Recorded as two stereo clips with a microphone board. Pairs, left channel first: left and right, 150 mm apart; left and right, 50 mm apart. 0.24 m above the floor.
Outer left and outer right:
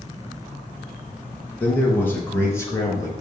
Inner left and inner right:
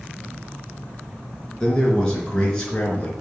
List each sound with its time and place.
1.6 s a man speaking: 10° left (ahead or behind), 4 m; by 3.1 s 20° left (ahead or behind), 3.5 m